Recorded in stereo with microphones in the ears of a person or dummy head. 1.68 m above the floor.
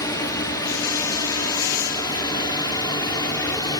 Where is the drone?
15° left (ahead or behind); by 3.8 s 20° left (ahead or behind).